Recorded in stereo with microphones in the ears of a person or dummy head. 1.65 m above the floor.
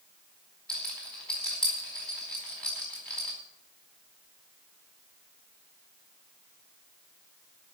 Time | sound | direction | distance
0.7 | a rattle | 5° left (ahead or behind) | 4.5 m